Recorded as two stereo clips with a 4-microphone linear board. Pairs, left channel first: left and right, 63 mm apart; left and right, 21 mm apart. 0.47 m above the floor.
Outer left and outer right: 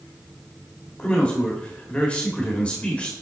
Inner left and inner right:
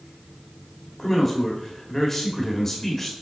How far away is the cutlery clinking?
I don't hear cutlery clinking.